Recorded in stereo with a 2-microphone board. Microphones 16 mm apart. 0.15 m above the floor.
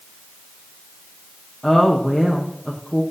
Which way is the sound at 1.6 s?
45° left (ahead or behind).